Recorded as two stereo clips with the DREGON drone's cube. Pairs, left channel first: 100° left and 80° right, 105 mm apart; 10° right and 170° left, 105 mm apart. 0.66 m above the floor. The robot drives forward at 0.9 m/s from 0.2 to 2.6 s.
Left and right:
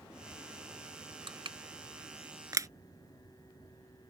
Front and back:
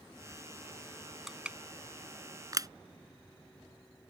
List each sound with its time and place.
1.3 s crushing: 105° right; by 2.7 s 135° right